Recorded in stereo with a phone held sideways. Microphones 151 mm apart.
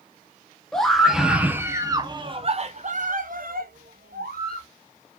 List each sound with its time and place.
0.7 s a scream: 5° left (ahead or behind), 1.4 m; by 4.7 s 85° right, 1.6 m